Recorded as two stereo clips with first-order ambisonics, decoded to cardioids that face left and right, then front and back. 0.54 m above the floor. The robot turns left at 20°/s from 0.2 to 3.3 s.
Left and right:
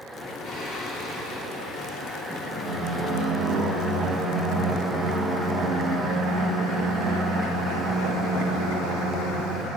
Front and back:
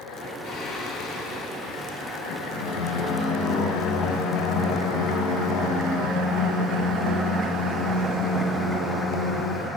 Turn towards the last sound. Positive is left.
turn(degrees=0)